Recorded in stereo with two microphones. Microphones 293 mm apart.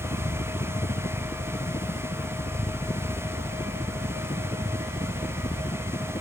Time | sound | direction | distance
0.0 | a helicopter | 20° left (ahead or behind) | ?